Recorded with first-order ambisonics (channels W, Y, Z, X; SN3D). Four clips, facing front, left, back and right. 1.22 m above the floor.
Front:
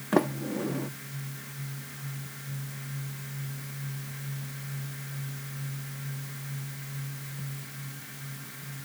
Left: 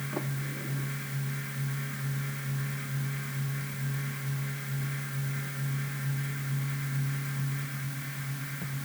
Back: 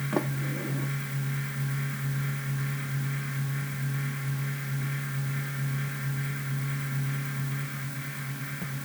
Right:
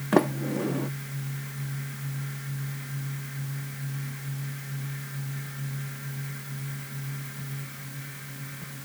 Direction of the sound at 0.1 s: 70° right.